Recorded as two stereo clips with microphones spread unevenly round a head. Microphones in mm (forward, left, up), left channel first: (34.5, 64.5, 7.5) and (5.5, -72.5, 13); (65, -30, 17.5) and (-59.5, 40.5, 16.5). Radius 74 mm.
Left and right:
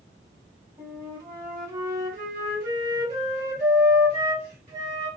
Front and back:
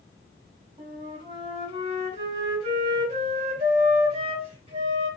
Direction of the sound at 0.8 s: 160° right.